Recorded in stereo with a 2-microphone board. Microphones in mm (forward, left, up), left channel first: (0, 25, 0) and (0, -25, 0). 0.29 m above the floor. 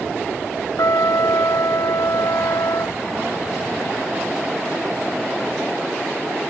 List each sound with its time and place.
0.8 s a trumpet: 80° left